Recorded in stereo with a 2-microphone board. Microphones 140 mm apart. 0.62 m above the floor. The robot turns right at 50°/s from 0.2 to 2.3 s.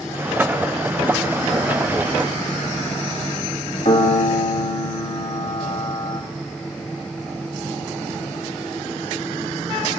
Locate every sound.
3.9 s a piano: 55° left (ahead or behind), 1.6 m